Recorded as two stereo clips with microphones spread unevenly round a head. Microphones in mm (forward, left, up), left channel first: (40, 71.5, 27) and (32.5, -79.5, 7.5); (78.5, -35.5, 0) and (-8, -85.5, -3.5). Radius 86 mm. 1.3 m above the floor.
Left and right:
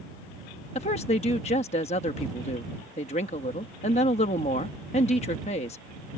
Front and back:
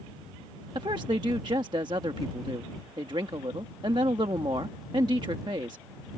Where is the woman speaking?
145° left.